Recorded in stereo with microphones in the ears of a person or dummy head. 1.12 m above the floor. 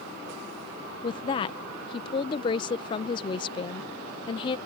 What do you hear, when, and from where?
1.0 s a woman speaking: 25° left (ahead or behind)